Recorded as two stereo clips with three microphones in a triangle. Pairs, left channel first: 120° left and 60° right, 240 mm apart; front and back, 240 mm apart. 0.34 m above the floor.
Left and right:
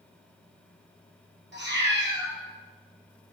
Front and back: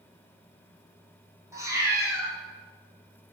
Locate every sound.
1.5 s a cat meowing: 105° right, 1.6 m